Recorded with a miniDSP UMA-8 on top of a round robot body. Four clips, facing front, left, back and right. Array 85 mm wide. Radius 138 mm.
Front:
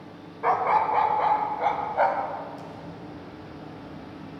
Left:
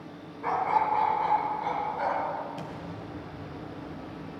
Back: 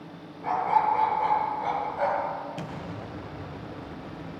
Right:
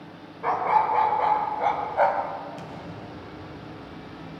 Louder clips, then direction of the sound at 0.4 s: Right 4 dB, front 1 dB; 20° right.